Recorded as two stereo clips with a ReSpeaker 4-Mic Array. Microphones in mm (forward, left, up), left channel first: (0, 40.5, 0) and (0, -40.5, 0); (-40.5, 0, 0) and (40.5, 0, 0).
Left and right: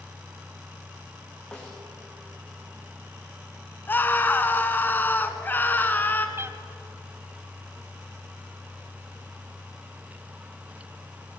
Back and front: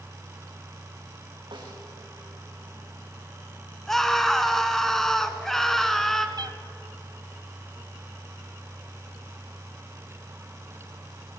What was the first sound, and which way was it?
A snare drum, 10° left.